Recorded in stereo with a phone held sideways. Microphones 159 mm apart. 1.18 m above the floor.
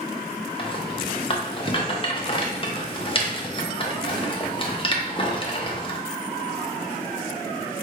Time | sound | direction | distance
0.6 | a rattle | 35° left (ahead or behind) | 0.6 m